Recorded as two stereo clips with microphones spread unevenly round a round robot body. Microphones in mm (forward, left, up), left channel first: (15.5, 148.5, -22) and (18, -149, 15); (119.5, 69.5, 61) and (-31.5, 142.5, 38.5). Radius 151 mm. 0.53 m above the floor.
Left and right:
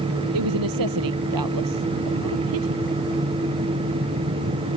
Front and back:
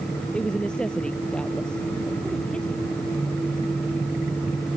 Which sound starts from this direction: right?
A woman speaking, at 0.3 s.